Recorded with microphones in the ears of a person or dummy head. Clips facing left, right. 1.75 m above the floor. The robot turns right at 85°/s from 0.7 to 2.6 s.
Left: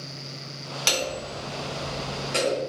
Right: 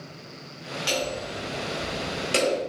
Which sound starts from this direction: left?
Hammering, at 0.9 s.